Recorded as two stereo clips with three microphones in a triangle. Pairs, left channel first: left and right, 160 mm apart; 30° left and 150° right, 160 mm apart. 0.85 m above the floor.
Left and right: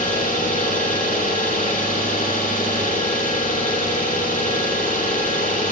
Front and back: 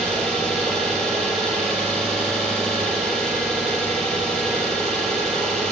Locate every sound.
0.0 s an engine running: 115° left, 7.5 m